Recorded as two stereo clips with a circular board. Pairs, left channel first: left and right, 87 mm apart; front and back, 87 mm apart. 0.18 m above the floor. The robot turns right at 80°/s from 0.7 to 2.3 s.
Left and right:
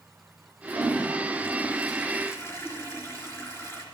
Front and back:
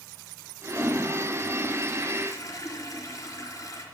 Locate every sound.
0.7 s a toilet flushing: 95° right, 3.5 m; by 3.9 s 35° left, 3.5 m